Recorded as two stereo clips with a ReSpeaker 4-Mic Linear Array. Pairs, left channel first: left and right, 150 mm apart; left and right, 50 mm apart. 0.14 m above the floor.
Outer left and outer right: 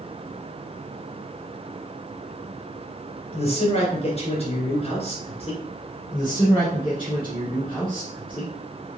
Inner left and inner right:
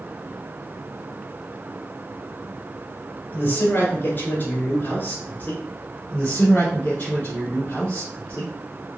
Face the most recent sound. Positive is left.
turn(degrees=35)  # may be behind; listen again after turning